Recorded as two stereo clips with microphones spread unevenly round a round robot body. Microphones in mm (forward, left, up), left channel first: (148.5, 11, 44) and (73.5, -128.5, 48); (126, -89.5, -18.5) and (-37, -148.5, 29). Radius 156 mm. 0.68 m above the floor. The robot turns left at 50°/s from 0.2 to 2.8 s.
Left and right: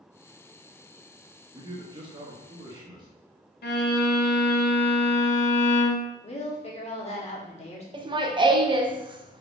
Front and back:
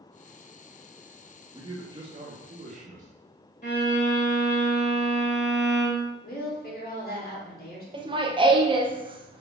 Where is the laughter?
95° right, 0.7 m.